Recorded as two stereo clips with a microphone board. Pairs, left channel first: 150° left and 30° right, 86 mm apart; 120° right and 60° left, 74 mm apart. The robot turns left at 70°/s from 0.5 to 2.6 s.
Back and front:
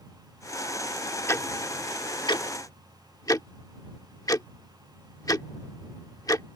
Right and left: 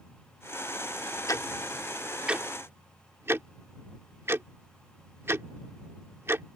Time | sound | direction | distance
1.3 | ticking | 155° right | ?